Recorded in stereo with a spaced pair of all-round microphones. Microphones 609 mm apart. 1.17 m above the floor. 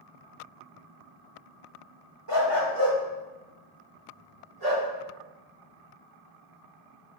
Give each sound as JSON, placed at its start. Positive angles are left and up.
{"t": 2.3, "sound": "a dog barking", "side_deg": -45, "distance_m": 1.0}